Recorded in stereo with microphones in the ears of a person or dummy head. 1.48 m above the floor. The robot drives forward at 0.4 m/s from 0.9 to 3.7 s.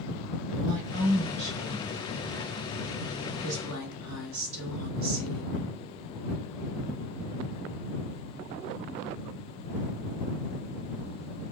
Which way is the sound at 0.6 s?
45° right (ahead or behind).